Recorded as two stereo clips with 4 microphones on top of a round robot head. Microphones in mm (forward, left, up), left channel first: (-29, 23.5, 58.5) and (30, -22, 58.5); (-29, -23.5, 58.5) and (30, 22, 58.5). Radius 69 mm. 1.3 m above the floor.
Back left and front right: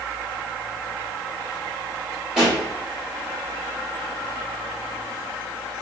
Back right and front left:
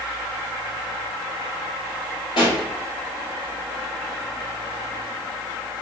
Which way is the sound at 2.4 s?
120° right.